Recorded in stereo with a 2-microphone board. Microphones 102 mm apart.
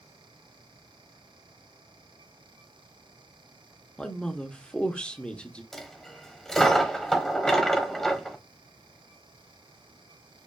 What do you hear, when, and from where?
4.0 s a man speaking: 10° left (ahead or behind), 0.8 m
5.7 s a dropped coin: 5° left (ahead or behind), 1.1 m